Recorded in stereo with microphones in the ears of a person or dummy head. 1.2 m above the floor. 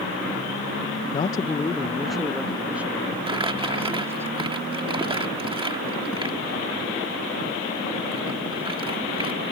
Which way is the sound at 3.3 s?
25° right (ahead or behind).